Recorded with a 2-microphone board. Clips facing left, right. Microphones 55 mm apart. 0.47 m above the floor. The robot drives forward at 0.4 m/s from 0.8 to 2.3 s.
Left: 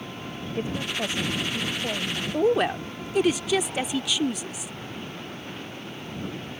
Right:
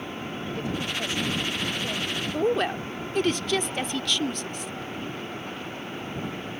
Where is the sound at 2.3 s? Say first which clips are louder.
Left 3 dB; 10° left (ahead or behind).